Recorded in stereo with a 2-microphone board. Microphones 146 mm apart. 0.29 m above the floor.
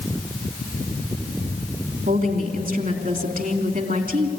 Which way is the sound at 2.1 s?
65° right (ahead or behind).